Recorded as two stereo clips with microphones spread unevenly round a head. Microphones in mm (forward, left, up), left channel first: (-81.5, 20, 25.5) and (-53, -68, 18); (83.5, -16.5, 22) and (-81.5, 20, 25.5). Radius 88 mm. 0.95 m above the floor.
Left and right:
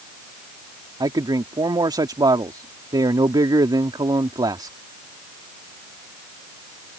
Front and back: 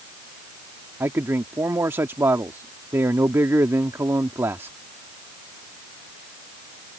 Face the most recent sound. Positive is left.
turn(degrees=-115)